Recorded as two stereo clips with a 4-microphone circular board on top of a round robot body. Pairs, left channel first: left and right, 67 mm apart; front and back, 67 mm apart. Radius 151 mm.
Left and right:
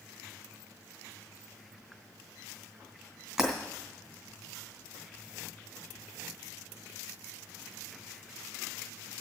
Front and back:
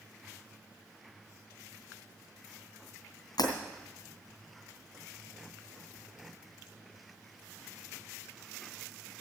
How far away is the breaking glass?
About 2.5 m.